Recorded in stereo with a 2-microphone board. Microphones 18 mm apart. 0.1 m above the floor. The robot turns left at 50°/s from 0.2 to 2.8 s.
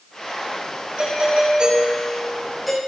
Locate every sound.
1.0 s a doorbell: 95° right, 9 m; by 2.8 s 175° left, 9 m